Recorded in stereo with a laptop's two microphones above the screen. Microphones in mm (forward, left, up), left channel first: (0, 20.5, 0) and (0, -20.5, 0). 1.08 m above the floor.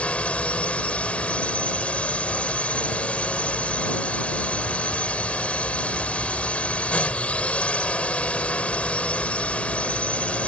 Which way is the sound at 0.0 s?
30° left (ahead or behind).